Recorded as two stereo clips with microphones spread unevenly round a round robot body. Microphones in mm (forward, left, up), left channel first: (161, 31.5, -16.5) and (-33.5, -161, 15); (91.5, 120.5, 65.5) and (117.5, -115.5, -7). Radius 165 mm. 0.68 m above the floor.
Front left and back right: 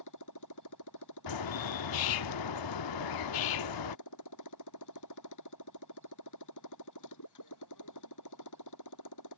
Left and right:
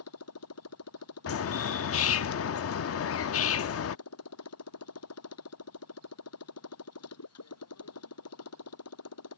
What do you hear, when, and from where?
0.0 s a motorcycle: 85° left
1.3 s a bird: 60° left